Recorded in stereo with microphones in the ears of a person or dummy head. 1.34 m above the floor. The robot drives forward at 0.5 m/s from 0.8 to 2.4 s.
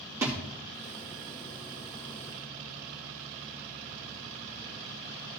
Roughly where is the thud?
Centre.